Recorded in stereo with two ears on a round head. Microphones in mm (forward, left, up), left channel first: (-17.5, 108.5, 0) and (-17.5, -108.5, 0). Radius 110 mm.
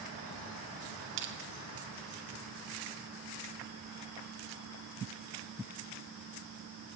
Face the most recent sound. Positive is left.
turn(degrees=-55)  # may be behind; listen again after turning